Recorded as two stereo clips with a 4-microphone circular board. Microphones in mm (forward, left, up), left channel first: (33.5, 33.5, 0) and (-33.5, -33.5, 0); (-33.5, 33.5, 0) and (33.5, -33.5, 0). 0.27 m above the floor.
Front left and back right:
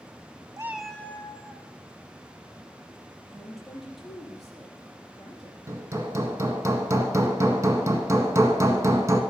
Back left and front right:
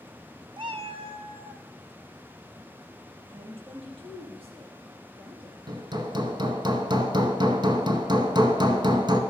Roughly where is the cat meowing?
Right.